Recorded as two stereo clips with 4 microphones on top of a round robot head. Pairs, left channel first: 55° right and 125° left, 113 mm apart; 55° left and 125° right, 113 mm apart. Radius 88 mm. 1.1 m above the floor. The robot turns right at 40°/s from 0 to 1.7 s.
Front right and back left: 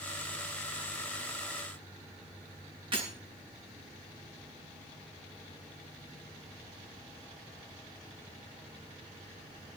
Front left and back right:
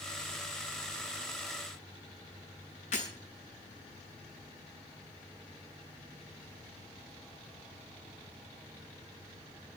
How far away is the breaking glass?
About 8 m.